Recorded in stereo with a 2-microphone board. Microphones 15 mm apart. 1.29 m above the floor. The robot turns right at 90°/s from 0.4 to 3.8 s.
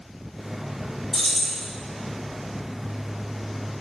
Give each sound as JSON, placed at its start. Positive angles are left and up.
{"t": 1.1, "sound": "keys jangling", "azimuth_deg": 40, "distance_m": 0.5}